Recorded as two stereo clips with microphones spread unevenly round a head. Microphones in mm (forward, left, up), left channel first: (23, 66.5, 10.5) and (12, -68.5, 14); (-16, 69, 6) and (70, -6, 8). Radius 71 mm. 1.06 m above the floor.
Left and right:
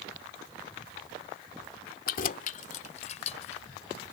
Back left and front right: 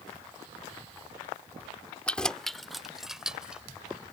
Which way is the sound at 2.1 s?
60° left.